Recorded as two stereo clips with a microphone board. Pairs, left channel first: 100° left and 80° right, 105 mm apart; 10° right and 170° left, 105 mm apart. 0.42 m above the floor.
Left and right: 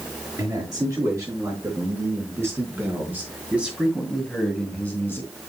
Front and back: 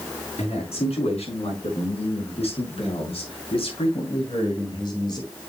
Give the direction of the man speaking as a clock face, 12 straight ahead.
1 o'clock.